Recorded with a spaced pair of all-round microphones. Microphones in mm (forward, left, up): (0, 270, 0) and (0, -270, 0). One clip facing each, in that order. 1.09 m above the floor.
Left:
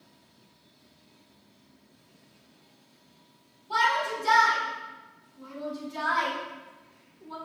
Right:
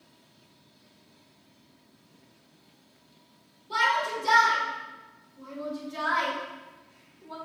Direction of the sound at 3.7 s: 10° left (ahead or behind).